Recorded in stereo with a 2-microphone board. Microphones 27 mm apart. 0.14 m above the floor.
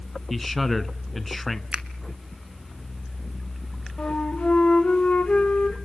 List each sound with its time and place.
0.3 s a man speaking: 5° left (ahead or behind), 1.2 m
1.7 s a finger snap: 35° right (ahead or behind), 1.3 m
4.0 s a flute: 50° left (ahead or behind), 3.5 m